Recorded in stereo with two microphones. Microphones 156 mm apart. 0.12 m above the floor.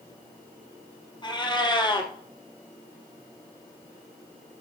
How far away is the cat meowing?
About 1.5 m.